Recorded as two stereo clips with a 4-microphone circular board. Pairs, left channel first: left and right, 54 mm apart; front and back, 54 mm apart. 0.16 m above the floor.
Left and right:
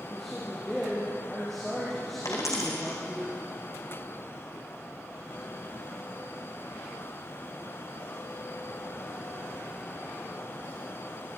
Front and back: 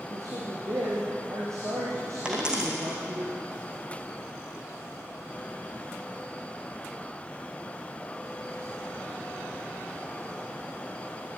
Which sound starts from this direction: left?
A dropped coin, at 2.2 s.